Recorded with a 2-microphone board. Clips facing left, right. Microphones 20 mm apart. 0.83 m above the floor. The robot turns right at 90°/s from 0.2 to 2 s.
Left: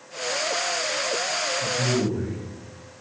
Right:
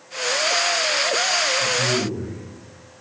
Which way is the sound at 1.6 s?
20° left.